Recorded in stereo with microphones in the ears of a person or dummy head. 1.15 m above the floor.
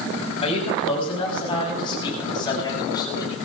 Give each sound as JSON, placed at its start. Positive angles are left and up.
{"t": 0.4, "sound": "a man speaking", "side_deg": 35, "distance_m": 7.5}